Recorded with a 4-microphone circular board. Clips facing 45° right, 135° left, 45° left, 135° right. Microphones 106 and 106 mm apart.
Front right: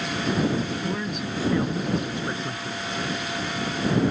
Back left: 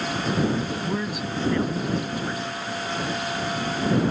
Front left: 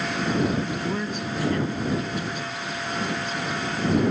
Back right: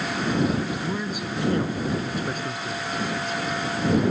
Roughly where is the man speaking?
Left.